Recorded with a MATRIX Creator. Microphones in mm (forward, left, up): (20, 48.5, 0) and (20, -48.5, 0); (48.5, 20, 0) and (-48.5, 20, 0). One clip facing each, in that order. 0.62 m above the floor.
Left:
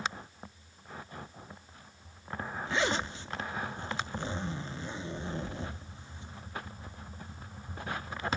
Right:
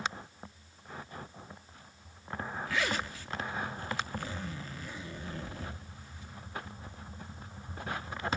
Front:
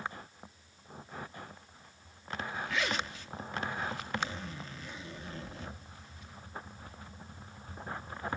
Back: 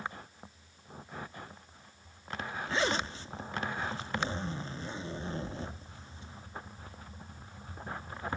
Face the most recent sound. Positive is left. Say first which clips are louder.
# left 3 dB, back 5 dB
turn(degrees=140)